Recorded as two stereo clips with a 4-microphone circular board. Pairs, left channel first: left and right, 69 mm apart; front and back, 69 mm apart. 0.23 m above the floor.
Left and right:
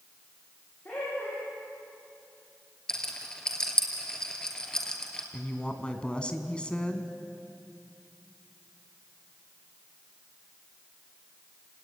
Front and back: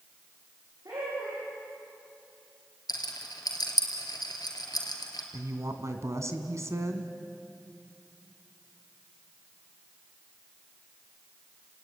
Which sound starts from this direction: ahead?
A rattle, at 2.9 s.